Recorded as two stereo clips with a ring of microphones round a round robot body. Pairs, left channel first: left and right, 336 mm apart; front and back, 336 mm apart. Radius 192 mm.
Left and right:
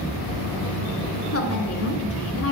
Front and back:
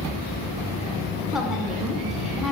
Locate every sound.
1.3 s a woman speaking: 90° left, 1.7 m